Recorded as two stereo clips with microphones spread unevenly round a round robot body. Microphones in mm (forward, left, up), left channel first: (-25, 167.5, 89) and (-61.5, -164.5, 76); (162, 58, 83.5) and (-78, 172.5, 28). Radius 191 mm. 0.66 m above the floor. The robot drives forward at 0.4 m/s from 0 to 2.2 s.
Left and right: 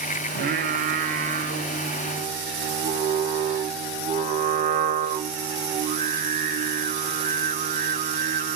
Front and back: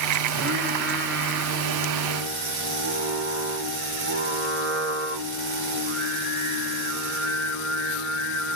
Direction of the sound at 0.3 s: 155° right.